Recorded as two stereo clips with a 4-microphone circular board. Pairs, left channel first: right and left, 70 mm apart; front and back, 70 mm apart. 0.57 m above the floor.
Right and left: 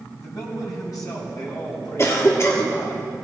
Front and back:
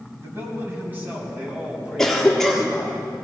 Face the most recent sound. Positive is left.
turn(degrees=-80)